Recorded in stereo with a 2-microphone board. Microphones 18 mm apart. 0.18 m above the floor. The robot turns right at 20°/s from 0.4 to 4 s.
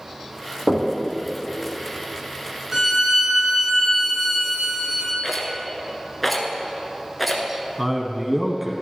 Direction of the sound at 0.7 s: 65° right (ahead or behind).